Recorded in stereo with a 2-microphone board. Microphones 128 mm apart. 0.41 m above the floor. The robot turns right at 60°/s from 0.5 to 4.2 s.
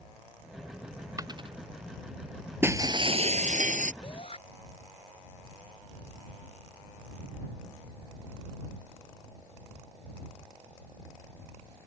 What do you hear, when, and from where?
1.2 s a dropped coin: 25° right (ahead or behind); by 1.6 s 50° right (ahead or behind)
2.6 s breaking glass: 165° right; by 3.9 s 85° right
4.0 s a shout: 40° left (ahead or behind); by 4.4 s 50° left (ahead or behind)